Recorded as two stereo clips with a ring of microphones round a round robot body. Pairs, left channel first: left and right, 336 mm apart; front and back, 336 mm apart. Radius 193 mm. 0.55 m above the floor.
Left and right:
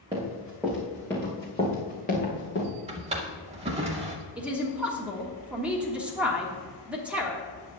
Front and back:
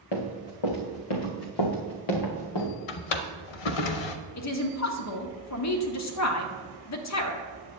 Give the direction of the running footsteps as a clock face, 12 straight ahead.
12 o'clock.